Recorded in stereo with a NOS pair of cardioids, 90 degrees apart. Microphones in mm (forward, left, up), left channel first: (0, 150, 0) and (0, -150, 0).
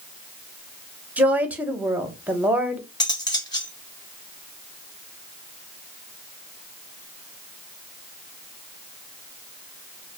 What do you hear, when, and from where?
1.2 s a woman speaking: 5° right, 0.7 m
3.0 s cutlery clinking: 15° left, 0.7 m